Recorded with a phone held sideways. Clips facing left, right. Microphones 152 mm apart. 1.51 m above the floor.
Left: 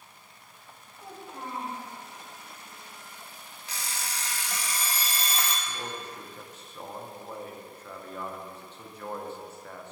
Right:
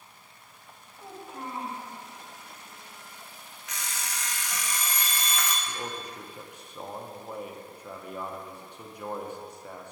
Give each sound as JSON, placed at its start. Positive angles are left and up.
{"t": 1.0, "sound": "a child speaking", "side_deg": -5, "distance_m": 2.0}
{"t": 3.7, "sound": "an alarm clock", "side_deg": 30, "distance_m": 0.7}
{"t": 5.7, "sound": "a man speaking", "side_deg": -15, "distance_m": 0.7}